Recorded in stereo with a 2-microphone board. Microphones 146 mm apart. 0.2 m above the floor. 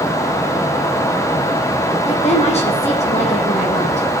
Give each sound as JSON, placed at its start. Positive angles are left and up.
{"t": 2.0, "sound": "a woman speaking", "side_deg": 45, "distance_m": 8.0}